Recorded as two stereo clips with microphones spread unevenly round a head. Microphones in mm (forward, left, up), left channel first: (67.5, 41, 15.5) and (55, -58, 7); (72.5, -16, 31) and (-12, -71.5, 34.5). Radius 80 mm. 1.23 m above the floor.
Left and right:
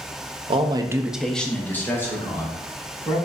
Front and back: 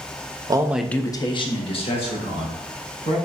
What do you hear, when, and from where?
0.5 s a man speaking: 100° right, 0.6 m; by 3.2 s 20° left, 2.5 m